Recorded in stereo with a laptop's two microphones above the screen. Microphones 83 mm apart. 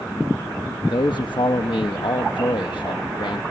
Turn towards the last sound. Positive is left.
turn(degrees=70)  # may be behind; listen again after turning